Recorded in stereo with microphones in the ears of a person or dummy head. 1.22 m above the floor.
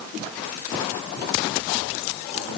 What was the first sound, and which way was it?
Only background noise.